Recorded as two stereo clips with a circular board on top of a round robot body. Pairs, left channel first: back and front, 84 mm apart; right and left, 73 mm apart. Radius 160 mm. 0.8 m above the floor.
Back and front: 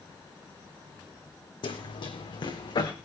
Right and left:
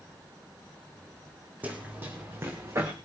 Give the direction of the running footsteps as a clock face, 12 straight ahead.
7 o'clock.